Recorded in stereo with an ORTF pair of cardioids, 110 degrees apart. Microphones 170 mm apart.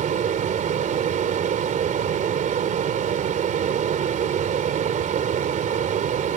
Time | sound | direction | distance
0.0 | a fan | 50° right | ?